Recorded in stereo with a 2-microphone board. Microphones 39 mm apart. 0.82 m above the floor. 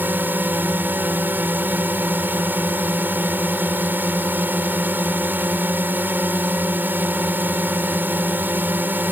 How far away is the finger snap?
I don't hear a finger snap.